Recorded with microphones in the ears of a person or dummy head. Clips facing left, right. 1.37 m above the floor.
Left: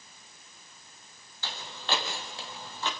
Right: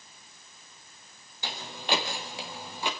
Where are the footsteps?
15° right (ahead or behind), 3.5 m; by 2.9 s 10° right (ahead or behind), 4.5 m.